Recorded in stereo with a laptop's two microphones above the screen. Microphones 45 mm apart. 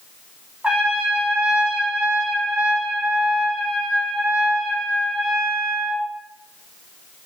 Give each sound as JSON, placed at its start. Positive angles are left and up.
{"t": 0.6, "sound": "a trumpet", "side_deg": -25, "distance_m": 4.5}